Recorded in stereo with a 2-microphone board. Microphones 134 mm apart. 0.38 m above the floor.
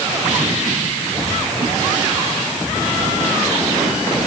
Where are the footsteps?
I don't hear footsteps.